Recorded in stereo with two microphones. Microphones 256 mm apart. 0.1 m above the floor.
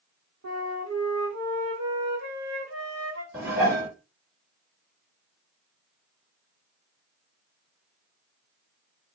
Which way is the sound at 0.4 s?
80° right.